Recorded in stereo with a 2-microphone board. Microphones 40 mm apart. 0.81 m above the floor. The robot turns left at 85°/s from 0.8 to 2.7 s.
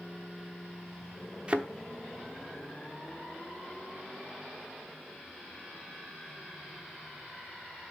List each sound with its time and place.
1.5 s a thud: 25° right (ahead or behind), 0.8 m; by 1.7 s 45° right (ahead or behind), 0.8 m